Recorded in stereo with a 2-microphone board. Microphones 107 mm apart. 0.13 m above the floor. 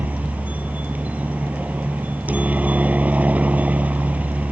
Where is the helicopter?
15° right (ahead or behind).